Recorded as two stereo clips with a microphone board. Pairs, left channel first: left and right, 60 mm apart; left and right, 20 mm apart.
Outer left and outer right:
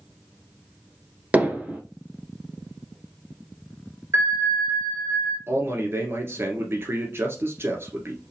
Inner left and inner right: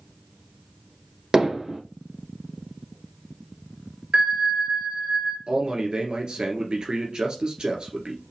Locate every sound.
1.3 s hammering: 25° right (ahead or behind), 1.3 m
4.1 s a bell: 50° right (ahead or behind), 2.5 m
5.5 s a man speaking: 45° right (ahead or behind), 1.8 m